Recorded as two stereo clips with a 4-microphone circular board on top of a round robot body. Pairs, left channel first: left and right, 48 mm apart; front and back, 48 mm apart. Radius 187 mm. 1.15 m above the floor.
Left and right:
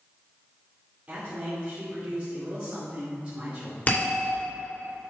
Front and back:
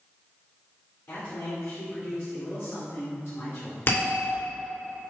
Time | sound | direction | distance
1.1 | a man speaking | 30° right | 2.5 m
3.9 | a bell | 40° left | 3 m